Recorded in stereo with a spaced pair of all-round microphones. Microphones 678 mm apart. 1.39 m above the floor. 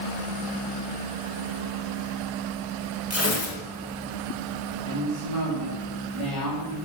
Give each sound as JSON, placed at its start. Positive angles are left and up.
{"t": 3.1, "sound": "tearing paper", "side_deg": 20, "distance_m": 2.0}
{"t": 4.8, "sound": "a woman speaking", "side_deg": -50, "distance_m": 4.5}